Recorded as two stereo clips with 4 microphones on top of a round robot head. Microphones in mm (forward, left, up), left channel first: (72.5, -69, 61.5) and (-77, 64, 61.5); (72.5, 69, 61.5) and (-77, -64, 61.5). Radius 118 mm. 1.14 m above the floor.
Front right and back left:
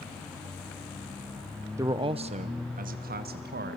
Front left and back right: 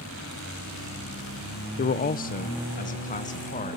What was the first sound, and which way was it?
A man speaking, 65° left.